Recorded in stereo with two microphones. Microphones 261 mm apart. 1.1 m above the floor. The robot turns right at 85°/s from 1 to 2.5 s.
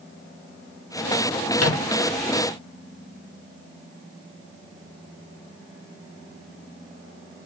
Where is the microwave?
70° left (ahead or behind), 0.5 m; by 1.9 s 55° left (ahead or behind), 0.5 m.